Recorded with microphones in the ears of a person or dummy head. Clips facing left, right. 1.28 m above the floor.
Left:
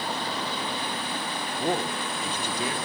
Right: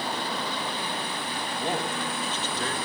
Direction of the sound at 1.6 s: 15° left (ahead or behind).